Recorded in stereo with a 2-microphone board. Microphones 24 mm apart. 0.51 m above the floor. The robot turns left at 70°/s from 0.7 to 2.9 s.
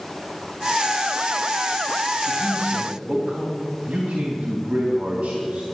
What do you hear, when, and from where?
2.3 s a man speaking: 60° right, 3 m; by 5.6 s 105° right, 3 m